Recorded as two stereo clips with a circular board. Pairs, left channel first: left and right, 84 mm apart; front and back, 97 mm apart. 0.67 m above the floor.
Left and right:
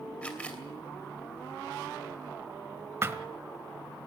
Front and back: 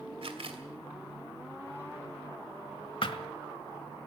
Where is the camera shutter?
165° left, 2.5 m.